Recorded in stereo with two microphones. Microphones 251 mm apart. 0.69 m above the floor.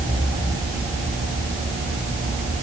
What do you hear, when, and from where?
Only background noise.